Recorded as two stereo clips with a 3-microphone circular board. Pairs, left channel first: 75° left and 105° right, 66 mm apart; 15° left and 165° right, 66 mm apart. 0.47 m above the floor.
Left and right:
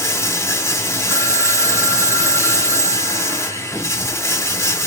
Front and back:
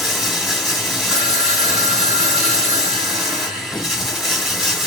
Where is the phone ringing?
140° right, 1.2 m.